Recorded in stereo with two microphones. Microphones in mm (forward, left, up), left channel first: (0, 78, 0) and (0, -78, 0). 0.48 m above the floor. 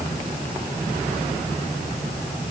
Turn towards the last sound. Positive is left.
No sound to turn to.